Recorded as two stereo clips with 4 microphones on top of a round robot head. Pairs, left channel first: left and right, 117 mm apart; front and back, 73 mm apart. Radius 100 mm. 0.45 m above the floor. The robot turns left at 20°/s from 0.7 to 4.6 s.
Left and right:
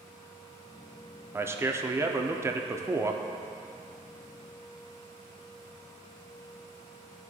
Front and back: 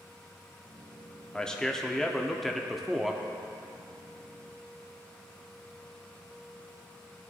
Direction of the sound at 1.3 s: 65° right.